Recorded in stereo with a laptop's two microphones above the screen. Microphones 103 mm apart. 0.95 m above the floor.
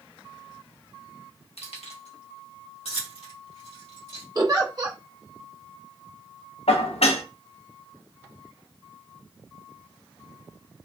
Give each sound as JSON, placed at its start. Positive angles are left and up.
{"t": 1.6, "sound": "keys jangling", "side_deg": 75, "distance_m": 1.0}
{"t": 4.3, "sound": "a giggle", "side_deg": -35, "distance_m": 0.8}
{"t": 6.7, "sound": "dishes clattering", "side_deg": 80, "distance_m": 0.6}